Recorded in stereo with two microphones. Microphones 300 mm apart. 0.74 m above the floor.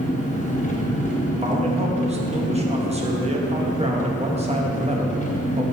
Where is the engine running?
25° left (ahead or behind), 0.8 m.